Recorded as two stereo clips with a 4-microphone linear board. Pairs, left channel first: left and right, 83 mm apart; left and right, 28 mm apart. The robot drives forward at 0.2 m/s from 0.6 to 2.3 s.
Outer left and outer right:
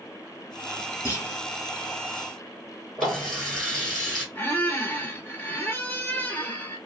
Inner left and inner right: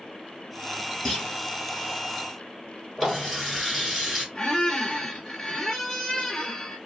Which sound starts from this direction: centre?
A running tap, at 3.0 s.